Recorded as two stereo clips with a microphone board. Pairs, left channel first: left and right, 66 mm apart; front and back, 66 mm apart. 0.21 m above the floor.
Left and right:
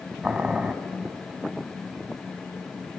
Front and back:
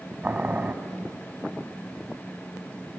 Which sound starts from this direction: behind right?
Boiling, at 0.2 s.